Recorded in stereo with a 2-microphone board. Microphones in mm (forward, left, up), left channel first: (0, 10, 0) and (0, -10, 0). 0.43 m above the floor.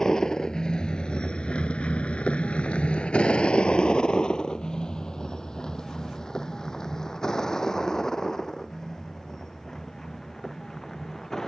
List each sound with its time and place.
0.0 s a vehicle: 30° left (ahead or behind); by 11.5 s 20° left (ahead or behind)